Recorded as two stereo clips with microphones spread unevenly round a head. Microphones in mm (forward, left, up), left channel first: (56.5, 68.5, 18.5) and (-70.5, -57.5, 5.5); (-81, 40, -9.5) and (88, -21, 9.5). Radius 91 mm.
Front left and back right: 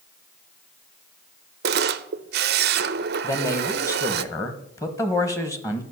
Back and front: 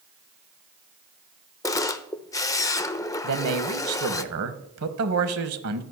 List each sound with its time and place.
1.6 s a camera shutter: 125° right, 0.6 m
3.2 s a man speaking: 30° right, 1.3 m